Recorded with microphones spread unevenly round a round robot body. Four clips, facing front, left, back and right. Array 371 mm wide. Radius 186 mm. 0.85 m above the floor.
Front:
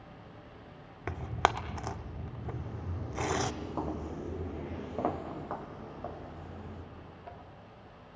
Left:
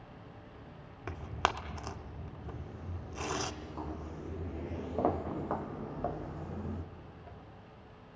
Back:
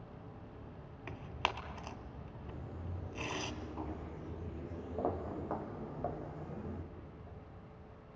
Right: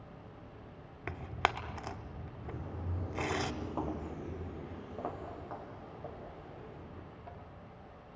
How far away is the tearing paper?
About 0.7 m.